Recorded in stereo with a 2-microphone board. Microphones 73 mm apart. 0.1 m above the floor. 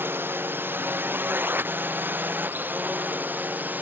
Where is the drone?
30° right (ahead or behind); by 3.8 s 25° right (ahead or behind).